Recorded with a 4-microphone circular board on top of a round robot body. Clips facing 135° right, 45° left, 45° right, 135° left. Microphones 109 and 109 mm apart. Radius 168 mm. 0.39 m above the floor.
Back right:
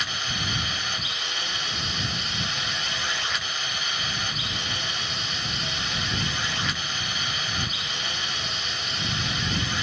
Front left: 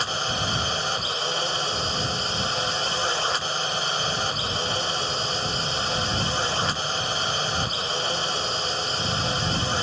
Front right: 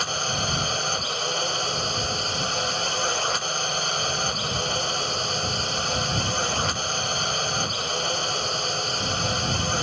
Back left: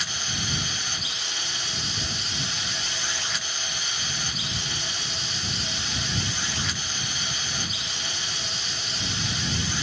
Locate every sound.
0.0 s a drone: 10° right